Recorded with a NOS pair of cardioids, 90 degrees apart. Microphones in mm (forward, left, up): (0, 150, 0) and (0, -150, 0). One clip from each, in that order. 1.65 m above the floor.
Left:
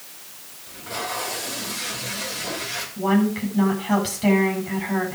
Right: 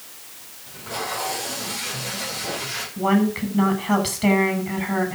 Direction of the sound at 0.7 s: Straight ahead.